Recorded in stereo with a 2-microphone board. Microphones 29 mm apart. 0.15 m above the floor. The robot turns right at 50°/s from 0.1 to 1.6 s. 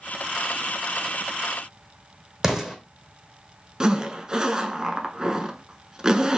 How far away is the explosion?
About 1.1 m.